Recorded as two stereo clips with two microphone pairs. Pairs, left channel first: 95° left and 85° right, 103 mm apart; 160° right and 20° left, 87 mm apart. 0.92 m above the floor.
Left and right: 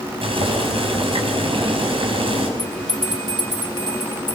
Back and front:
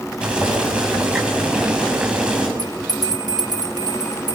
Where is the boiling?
60° right, 7 m.